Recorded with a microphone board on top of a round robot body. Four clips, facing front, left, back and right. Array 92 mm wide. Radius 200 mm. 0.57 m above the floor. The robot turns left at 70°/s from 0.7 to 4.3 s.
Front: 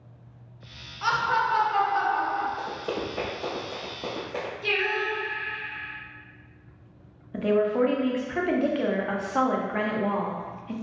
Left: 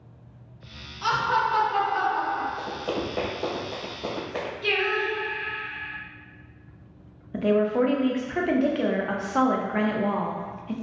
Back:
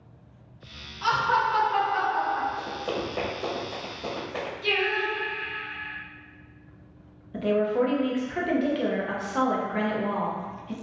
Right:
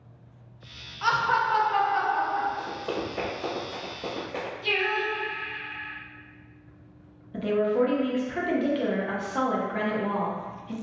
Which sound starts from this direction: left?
Singing, at 4.6 s.